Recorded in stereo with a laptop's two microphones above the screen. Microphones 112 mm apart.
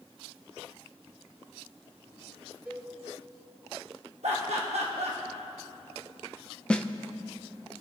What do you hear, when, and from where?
2.6 s a cowbell: 20° right (ahead or behind), 4.5 m
4.2 s laughter: 70° right (ahead or behind), 1.1 m
6.7 s a snare drum: 10° left (ahead or behind), 0.5 m